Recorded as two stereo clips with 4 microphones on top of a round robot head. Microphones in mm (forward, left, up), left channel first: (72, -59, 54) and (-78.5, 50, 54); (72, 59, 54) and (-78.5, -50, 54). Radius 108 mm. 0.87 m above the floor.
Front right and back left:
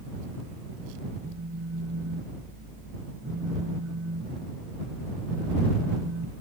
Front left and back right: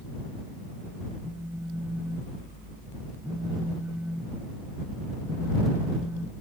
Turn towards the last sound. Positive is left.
turn(degrees=130)